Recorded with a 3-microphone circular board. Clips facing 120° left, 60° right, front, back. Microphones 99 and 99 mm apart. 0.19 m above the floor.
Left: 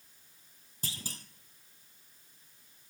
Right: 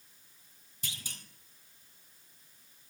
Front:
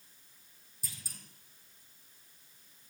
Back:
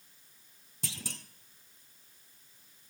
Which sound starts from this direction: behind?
A clunk, at 0.8 s.